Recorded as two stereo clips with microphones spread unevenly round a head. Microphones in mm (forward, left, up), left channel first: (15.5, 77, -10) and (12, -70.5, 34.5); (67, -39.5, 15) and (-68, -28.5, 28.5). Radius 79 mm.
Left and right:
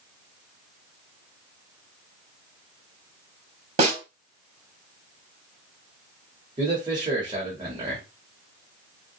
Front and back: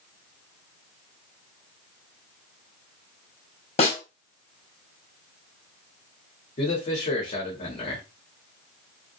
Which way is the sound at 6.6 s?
25° right.